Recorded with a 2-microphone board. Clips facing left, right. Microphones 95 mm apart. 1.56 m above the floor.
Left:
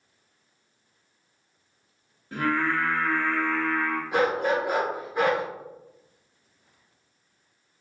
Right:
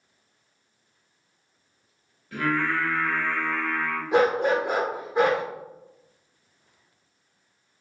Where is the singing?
30° left (ahead or behind), 1.2 m.